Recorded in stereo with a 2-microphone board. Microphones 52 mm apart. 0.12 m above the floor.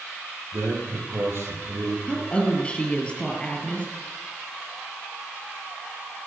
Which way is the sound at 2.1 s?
20° left (ahead or behind).